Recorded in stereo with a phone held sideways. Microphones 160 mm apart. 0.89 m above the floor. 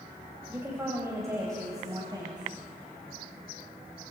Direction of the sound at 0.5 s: 15° right (ahead or behind).